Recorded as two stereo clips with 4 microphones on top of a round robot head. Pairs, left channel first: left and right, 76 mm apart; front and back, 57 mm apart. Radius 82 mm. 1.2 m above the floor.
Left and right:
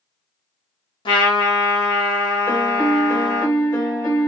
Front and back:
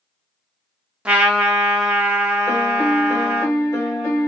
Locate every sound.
1.1 s a trumpet: 105° left, 0.7 m
2.5 s a piano: 30° left, 1.5 m